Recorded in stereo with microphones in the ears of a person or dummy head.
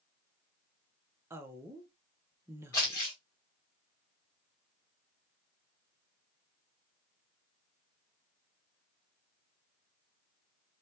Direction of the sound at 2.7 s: 10° left (ahead or behind).